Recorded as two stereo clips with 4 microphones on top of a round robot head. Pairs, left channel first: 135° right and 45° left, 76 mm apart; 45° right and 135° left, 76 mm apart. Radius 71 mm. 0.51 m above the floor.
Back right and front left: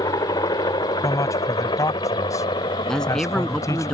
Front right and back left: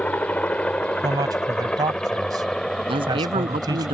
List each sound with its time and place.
0.0 s a helicopter: 115° right; by 4.0 s 130° right
1.0 s a man speaking: 175° left
2.9 s a man speaking: 140° left